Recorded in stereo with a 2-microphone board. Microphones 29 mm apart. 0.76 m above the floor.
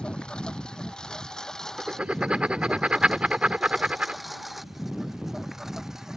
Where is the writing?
40° right (ahead or behind).